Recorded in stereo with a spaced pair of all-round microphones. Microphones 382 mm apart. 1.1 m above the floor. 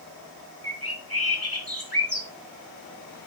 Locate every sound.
0.6 s a bird: 65° left (ahead or behind), 1.7 m